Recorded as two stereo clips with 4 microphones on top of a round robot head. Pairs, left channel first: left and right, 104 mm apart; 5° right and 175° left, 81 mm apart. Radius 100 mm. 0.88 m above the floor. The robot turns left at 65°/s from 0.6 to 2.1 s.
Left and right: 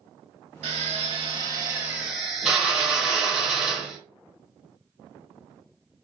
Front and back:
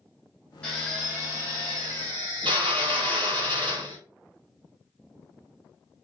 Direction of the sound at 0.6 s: 80° right.